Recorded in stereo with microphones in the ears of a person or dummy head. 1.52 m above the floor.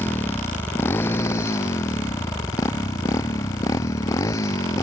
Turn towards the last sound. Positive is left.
turn(degrees=20)  # may be behind; listen again after turning